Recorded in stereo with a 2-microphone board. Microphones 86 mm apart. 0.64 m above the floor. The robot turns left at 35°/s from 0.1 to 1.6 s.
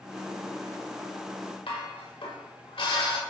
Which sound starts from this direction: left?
Dishes clattering, at 1.7 s.